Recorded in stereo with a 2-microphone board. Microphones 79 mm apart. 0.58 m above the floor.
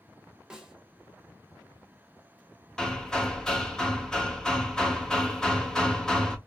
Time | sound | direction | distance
0.5 | a snare drum | 5° right (ahead or behind) | 1.2 m
2.8 | hammering | 5° left (ahead or behind) | 0.7 m